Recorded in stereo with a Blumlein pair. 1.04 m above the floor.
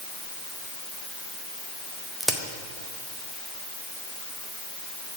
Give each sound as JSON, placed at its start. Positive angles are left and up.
{"t": 2.2, "sound": "a crack", "azimuth_deg": 0, "distance_m": 0.8}